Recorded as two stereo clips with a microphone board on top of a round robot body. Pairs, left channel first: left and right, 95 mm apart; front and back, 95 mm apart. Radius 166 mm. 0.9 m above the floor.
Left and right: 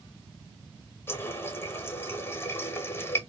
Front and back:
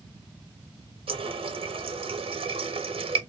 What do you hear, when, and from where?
1.1 s a running tap: 155° left, 0.8 m